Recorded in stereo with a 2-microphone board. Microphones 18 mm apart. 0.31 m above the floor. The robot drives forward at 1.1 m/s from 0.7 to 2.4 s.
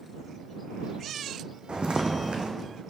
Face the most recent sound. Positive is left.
turn(degrees=-65)  # may be behind; listen again after turning